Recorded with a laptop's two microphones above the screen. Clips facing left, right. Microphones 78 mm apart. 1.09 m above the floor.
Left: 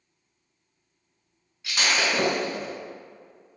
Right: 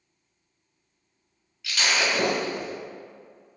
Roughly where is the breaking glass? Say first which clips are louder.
Even; left.